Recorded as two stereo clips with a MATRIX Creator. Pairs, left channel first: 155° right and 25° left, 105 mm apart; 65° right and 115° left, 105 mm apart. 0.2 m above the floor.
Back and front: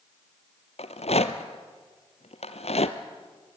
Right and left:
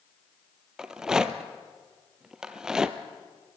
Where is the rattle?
165° right, 1.1 m.